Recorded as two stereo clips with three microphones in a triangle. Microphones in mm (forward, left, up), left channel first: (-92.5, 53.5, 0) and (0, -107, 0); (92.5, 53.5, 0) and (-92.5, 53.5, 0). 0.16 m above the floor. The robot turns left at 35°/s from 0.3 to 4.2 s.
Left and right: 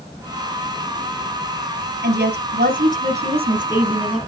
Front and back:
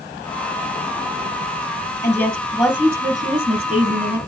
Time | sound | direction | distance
2.0 | a woman speaking | 70° right | 3.5 m